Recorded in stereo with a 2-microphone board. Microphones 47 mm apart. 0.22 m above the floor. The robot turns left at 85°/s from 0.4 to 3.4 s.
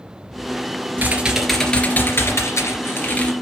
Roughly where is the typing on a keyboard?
Behind right.